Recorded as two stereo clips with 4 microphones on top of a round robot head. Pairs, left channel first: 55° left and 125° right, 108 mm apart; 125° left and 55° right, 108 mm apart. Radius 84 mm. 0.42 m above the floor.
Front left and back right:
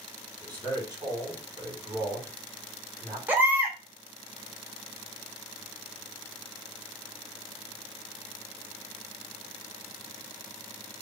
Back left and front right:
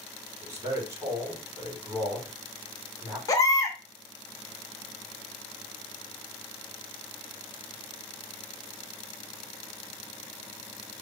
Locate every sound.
0.4 s a man speaking: 105° right, 1.8 m
3.3 s a baby crying: 170° left, 0.8 m